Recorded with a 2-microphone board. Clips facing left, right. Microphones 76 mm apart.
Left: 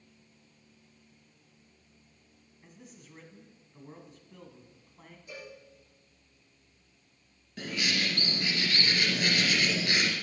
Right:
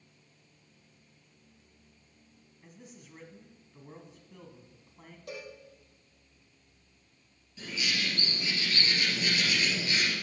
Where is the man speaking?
Centre (ahead or behind), 1.4 m.